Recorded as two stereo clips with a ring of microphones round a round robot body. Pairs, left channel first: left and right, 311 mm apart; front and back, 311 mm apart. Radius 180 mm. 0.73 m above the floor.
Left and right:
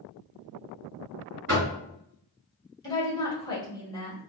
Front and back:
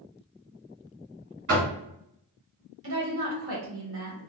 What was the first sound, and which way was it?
Knocking, 140° right.